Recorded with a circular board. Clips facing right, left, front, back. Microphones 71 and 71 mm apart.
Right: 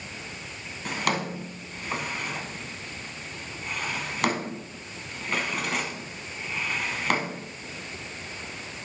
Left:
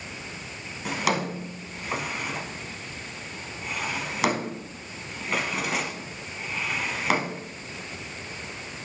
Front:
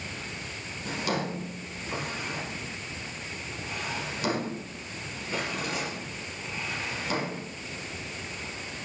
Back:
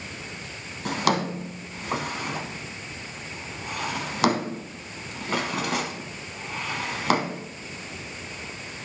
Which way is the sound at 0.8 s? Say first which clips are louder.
Left 2 dB, back 6 dB; 175° left.